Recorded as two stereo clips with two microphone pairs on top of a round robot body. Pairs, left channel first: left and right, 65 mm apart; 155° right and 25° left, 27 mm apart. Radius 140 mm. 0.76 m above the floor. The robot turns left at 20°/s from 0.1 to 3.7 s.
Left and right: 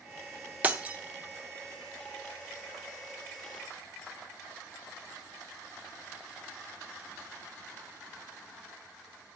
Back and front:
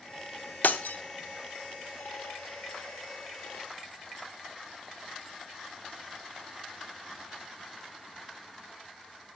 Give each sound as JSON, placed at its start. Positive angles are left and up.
{"t": 0.6, "sound": "breaking glass", "azimuth_deg": -155, "distance_m": 0.8}